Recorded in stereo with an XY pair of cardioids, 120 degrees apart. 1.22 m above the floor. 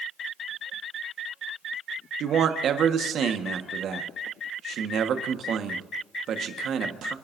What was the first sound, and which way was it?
A man speaking, 55° right.